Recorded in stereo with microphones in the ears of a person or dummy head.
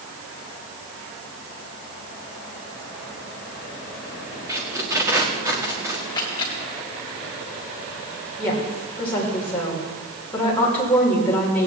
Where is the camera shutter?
20° left (ahead or behind), 2 m.